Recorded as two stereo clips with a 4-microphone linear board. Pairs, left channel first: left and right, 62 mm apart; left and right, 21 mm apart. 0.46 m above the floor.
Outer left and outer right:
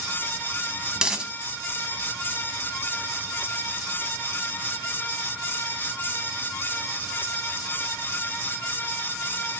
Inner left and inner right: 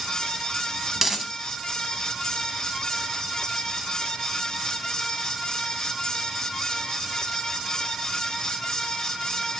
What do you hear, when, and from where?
1.0 s a dropped coin: 15° right (ahead or behind), 1.0 m